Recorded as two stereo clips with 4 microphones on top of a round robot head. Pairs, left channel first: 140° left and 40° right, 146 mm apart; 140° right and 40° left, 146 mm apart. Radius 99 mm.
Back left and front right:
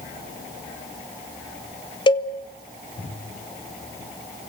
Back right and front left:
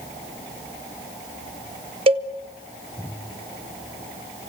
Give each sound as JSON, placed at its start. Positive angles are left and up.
{"t": 2.1, "sound": "a cowbell", "azimuth_deg": 85, "distance_m": 2.0}